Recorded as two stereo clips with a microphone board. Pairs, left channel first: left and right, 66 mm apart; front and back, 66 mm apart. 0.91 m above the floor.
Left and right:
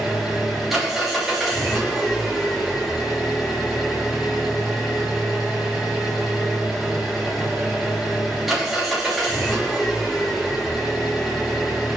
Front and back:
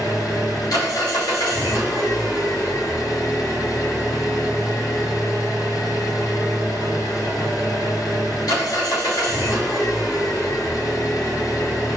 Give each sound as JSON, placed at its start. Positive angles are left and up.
{"t": 0.0, "sound": "an engine running", "azimuth_deg": -5, "distance_m": 3.0}